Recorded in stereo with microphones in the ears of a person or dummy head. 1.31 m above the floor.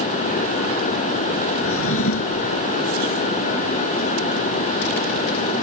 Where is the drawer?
85° left.